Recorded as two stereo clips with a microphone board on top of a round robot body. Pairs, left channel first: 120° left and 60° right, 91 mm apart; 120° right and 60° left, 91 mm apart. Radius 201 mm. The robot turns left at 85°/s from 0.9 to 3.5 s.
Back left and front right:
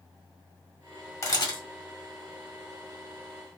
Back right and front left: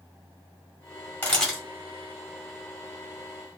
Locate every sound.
1.2 s a camera shutter: 175° left, 1.5 m; by 1.6 s 140° left, 1.5 m